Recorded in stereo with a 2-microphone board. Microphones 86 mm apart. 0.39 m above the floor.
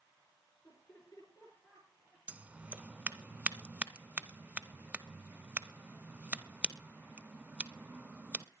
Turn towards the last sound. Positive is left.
turn(degrees=-15)  # may be behind; listen again after turning